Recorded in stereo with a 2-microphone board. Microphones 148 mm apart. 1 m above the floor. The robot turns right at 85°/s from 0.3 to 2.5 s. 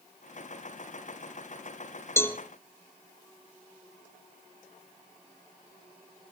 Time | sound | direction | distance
2.2 | a cowbell | 15° left (ahead or behind) | 0.8 m